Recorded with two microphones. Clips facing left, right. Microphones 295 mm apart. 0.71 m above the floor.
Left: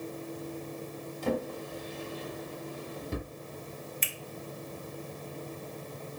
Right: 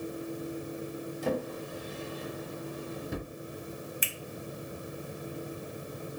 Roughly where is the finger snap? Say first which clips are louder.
Right 1 dB; centre.